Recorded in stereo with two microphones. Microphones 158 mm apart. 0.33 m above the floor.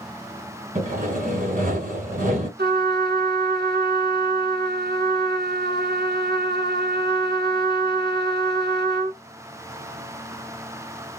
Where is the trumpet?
75° right (ahead or behind), 1.1 m.